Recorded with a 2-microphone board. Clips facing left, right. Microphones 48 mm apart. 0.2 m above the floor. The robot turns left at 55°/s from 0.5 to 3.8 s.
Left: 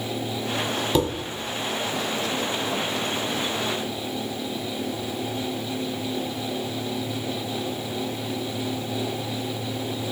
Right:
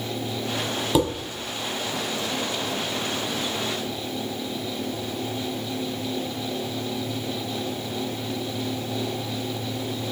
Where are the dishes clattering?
10° right (ahead or behind), 0.9 m; by 1.1 s 15° right (ahead or behind), 0.9 m.